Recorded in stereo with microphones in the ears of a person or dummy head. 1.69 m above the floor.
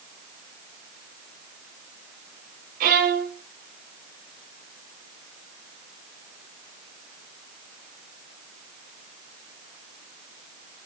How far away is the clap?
No clap in this recording.